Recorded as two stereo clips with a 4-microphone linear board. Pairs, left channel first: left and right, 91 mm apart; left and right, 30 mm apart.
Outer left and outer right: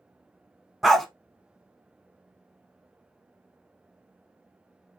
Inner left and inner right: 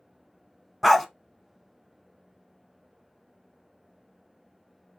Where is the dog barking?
Centre (ahead or behind), 0.5 m.